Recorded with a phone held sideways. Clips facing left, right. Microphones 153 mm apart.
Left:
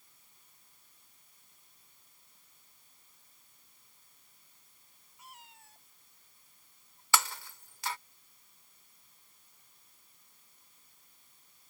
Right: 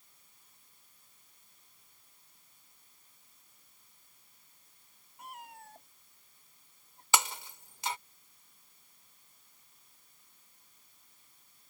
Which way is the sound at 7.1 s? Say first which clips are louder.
Even; 20° right (ahead or behind).